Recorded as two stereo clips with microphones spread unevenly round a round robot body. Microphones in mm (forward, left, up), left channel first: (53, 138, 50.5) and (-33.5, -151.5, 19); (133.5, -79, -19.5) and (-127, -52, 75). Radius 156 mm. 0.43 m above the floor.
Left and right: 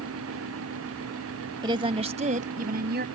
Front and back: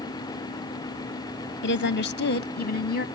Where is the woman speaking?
35° right; by 3.0 s 50° right.